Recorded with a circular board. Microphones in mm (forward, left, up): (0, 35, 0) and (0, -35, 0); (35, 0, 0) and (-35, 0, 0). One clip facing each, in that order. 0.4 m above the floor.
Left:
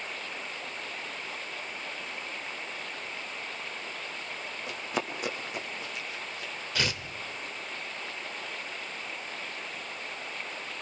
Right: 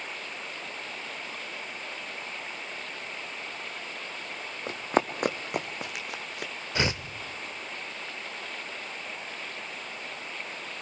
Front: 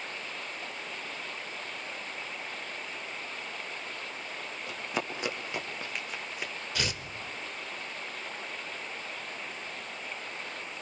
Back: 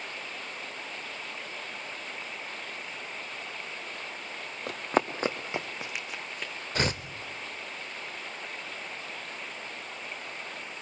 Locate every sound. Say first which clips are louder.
4.7 s running footsteps: right 8 dB, back 8 dB; 140° right, 1.5 m; by 6.5 s 75° right, 1.3 m
6.8 s tearing paper: right 4 dB, back 6 dB; 145° right, 0.7 m